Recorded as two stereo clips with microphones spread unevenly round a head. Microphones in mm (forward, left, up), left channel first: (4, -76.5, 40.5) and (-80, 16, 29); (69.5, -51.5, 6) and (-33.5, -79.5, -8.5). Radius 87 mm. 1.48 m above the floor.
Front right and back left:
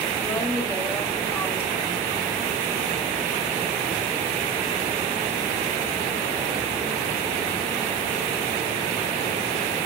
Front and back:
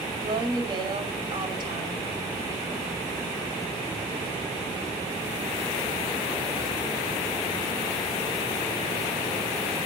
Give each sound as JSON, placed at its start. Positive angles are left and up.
{"t": 0.2, "sound": "a woman speaking", "azimuth_deg": -115, "distance_m": 6.0}